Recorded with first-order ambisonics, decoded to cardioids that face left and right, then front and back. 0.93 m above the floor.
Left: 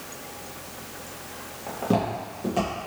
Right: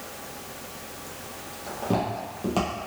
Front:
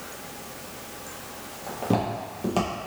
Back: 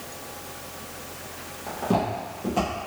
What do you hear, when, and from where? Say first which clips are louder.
1.7 s footsteps: left 2 dB, back 1 dB; 85° left, 0.9 m; by 2.7 s 35° right, 1.3 m